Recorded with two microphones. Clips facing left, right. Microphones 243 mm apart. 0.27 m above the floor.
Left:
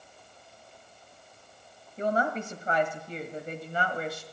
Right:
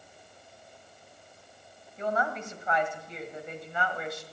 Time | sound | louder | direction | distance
2.0 | a woman speaking | left 3 dB | 35° left (ahead or behind) | 1.5 m